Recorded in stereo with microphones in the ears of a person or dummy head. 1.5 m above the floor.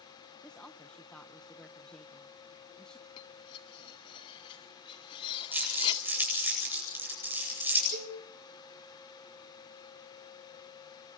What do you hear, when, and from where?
0.4 s a woman speaking: 5° left (ahead or behind), 0.8 m
3.2 s cutlery clinking: 30° left (ahead or behind), 2 m
5.5 s crumpling: 10° right (ahead or behind), 9 m
7.9 s a cowbell: 40° right (ahead or behind), 3.5 m